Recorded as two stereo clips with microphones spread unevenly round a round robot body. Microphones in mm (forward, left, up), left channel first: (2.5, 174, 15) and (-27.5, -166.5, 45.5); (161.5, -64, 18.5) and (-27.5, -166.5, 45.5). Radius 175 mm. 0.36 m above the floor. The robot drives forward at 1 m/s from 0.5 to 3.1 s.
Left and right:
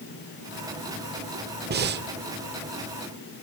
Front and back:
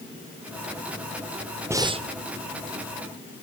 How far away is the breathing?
About 0.9 m.